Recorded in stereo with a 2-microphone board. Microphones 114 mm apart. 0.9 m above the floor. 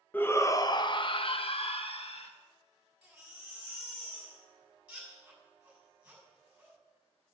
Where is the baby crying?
10° right (ahead or behind), 6.5 m.